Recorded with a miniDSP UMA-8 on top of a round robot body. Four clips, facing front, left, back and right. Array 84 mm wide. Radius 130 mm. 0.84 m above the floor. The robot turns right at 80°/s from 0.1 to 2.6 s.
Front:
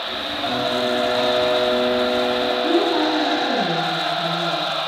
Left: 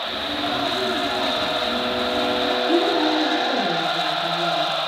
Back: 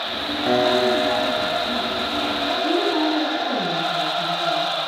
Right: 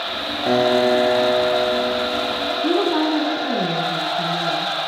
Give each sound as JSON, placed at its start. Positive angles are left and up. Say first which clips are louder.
{"t": 0.5, "sound": "a piano", "louder": "right 10 dB, back 4 dB", "azimuth_deg": -130, "distance_m": 1.8}
{"t": 2.6, "sound": "a woman speaking", "louder": "right 2 dB, front 1 dB", "azimuth_deg": -85, "distance_m": 9.5}